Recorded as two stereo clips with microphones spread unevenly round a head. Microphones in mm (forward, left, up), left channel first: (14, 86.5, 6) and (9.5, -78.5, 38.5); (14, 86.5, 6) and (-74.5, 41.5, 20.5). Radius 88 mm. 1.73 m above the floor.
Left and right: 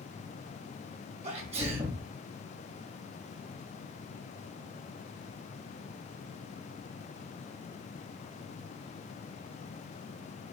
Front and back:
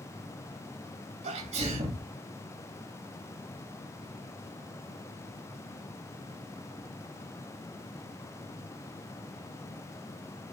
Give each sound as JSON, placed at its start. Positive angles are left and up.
{"t": 1.2, "sound": "a sneeze", "azimuth_deg": -145, "distance_m": 3.0}